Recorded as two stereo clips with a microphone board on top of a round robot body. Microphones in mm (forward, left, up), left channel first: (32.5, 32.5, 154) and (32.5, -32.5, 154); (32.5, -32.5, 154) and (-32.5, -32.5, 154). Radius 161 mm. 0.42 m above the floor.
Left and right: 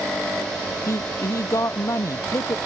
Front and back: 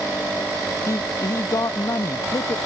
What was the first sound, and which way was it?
A man speaking, 45° left.